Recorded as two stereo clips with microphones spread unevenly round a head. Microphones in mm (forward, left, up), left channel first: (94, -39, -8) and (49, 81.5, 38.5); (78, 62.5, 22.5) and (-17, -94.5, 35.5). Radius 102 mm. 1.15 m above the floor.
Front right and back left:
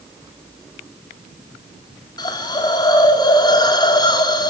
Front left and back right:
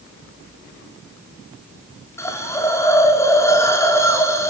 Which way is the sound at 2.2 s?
15° right.